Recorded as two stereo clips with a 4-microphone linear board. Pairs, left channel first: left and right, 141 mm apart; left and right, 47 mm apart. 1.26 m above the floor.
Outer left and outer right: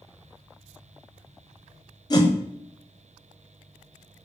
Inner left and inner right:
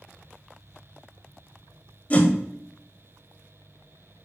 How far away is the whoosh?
About 0.7 m.